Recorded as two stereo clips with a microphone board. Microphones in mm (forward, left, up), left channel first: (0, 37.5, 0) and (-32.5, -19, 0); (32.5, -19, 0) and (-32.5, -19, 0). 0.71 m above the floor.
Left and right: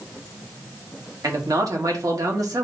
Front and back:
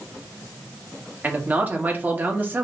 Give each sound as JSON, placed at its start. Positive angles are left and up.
{"t": 1.2, "sound": "a man speaking", "azimuth_deg": -120, "distance_m": 1.3}